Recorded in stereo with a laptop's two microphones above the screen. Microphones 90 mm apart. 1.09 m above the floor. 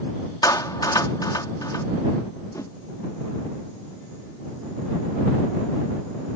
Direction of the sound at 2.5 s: 35° left (ahead or behind).